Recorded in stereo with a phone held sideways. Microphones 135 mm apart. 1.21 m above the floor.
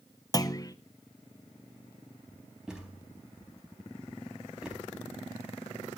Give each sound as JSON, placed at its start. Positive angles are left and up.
{"t": 0.3, "sound": "a clunk", "side_deg": 30, "distance_m": 0.8}
{"t": 2.7, "sound": "a thud", "side_deg": -5, "distance_m": 4.5}